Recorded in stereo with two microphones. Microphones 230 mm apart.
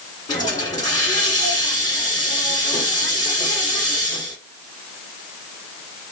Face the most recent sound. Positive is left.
turn(degrees=15)  # may be behind; listen again after turning